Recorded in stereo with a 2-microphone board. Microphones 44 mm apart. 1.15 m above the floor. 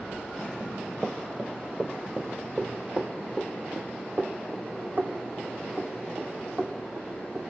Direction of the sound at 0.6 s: 10° right (ahead or behind).